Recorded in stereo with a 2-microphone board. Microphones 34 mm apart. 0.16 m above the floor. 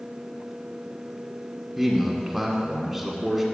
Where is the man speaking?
5° right (ahead or behind), 1.2 m.